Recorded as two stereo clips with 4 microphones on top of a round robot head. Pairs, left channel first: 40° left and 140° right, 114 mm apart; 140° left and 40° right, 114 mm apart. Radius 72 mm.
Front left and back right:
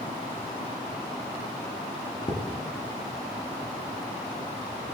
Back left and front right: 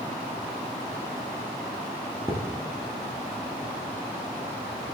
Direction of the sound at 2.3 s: 15° left.